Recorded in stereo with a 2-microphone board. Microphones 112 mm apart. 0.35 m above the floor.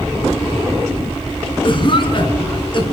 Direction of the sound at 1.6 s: 45° left (ahead or behind).